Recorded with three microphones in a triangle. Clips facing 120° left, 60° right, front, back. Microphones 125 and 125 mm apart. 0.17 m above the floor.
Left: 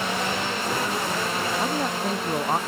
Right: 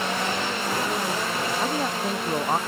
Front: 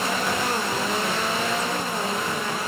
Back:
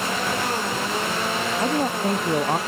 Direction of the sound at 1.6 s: 150° right.